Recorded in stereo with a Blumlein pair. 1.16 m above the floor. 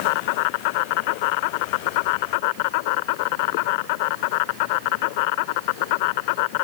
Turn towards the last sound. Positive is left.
turn(degrees=45)